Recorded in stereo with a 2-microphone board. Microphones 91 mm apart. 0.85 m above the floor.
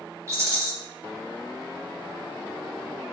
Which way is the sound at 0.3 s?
35° right (ahead or behind).